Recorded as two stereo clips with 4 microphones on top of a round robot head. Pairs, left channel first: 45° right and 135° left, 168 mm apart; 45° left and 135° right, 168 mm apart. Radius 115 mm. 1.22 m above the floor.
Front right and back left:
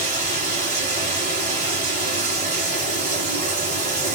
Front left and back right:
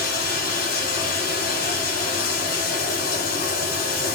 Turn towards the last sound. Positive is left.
turn(degrees=90)